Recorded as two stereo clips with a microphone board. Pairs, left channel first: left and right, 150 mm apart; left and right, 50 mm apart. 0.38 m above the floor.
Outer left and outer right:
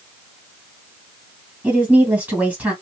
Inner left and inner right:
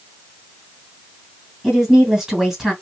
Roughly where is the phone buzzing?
No phone buzzing in this recording.